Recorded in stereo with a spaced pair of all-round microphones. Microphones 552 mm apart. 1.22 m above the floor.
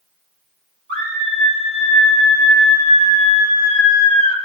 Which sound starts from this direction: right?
A scream, at 0.9 s.